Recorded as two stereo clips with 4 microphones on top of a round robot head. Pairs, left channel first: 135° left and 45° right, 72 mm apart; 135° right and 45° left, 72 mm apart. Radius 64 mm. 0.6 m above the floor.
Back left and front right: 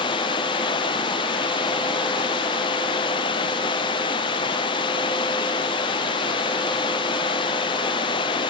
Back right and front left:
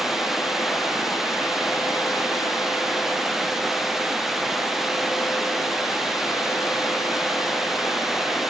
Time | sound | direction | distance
0.0 | running water | 130° left | ?